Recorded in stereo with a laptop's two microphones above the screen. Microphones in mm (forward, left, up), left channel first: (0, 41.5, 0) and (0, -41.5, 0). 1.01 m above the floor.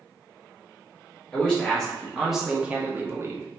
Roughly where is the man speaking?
Centre.